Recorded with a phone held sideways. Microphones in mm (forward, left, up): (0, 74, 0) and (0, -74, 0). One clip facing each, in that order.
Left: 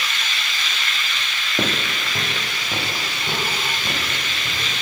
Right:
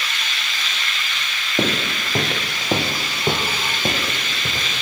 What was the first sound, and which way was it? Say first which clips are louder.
Footsteps: right 3 dB; 15° right (ahead or behind).